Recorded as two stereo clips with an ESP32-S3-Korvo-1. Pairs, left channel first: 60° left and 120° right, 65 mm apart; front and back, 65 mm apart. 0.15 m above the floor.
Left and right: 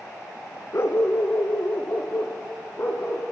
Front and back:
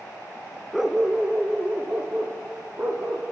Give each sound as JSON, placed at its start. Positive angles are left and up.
{"t": 0.7, "sound": "a dog barking", "azimuth_deg": 95, "distance_m": 1.0}